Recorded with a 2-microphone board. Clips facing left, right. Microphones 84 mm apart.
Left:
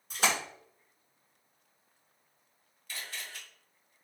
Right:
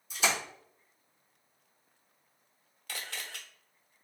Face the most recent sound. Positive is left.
turn(degrees=-70)  # may be behind; listen again after turning